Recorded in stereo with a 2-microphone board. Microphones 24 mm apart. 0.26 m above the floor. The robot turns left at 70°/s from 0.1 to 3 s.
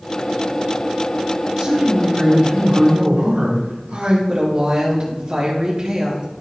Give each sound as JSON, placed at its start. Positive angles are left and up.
{"t": 1.6, "sound": "a man speaking", "azimuth_deg": -30, "distance_m": 4.0}
{"t": 4.3, "sound": "a woman speaking", "side_deg": -40, "distance_m": 3.5}